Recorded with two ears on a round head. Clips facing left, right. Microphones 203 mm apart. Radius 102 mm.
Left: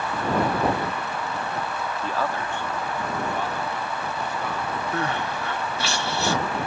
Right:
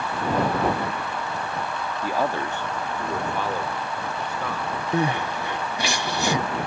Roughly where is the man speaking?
Centre.